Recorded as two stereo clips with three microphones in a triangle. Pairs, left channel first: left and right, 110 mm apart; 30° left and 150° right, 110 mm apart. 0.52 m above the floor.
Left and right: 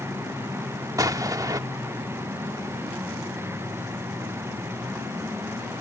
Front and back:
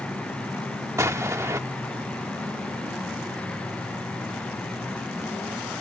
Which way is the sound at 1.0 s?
110° right.